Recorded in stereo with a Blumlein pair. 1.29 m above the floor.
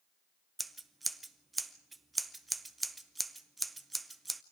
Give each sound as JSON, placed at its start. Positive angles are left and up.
{"t": 0.6, "sound": "scissors", "azimuth_deg": -10, "distance_m": 0.7}